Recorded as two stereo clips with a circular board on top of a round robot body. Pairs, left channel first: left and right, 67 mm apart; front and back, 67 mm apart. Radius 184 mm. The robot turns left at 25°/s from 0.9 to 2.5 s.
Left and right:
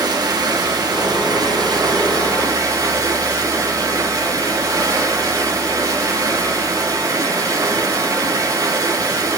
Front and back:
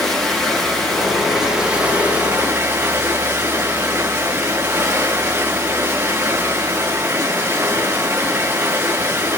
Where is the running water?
85° right, 7 m; by 9.4 s 125° right, 7 m.